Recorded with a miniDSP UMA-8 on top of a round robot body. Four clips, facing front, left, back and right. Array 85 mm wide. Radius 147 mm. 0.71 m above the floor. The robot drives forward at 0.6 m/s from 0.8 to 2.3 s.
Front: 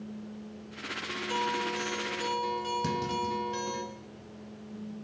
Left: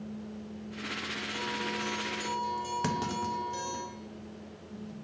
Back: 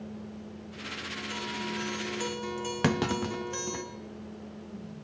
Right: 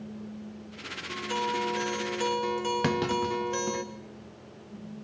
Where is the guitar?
50° right, 0.9 m; by 3.8 s 100° right, 0.7 m.